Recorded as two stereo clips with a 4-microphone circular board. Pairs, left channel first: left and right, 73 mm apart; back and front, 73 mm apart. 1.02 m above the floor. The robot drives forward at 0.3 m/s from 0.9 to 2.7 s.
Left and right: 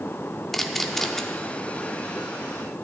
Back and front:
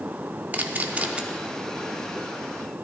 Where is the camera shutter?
10° left, 0.6 m; by 1.2 s 15° left, 0.5 m.